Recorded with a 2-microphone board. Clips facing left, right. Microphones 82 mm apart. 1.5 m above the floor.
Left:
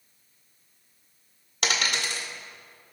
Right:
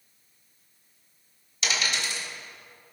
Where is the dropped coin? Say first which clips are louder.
Left 2 dB; 55° left (ahead or behind), 1.6 m.